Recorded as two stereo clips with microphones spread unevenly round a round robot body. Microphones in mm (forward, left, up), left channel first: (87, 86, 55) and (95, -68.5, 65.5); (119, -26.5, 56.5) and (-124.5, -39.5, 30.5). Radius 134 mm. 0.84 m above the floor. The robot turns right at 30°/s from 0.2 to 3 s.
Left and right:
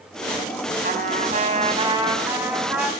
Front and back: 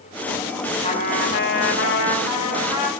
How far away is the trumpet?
About 6.5 m.